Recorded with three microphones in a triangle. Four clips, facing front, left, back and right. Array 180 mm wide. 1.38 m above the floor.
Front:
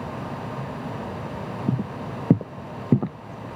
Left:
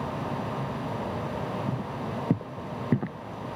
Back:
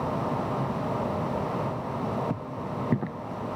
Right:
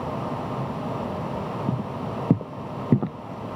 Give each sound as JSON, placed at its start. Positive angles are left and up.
{"t": 1.7, "sound": "footsteps", "azimuth_deg": -20}